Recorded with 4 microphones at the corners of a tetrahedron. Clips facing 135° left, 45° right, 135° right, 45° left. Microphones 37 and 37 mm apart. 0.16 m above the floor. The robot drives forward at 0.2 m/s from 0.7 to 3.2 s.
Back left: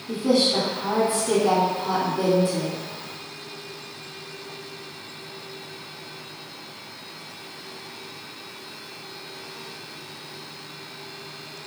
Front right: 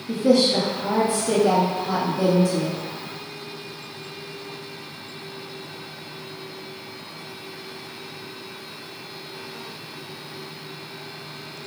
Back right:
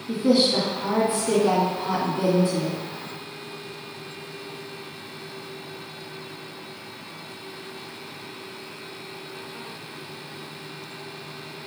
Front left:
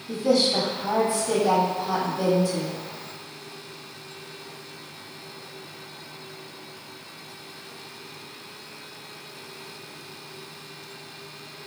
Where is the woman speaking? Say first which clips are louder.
Front right 3 dB, back right 2 dB; straight behind, 1.9 m.